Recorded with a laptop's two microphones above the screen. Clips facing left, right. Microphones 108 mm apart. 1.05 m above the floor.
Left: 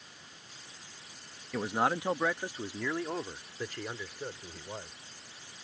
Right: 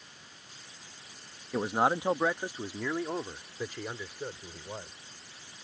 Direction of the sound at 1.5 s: 25° right (ahead or behind).